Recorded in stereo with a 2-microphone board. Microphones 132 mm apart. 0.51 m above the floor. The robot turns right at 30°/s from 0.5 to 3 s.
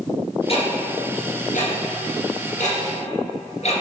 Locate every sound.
0.5 s ticking: 50° left (ahead or behind), 1.9 m; by 3.8 s 55° left (ahead or behind), 1.9 m